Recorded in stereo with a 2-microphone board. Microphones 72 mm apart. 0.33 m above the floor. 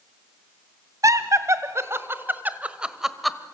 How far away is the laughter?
About 1.9 m.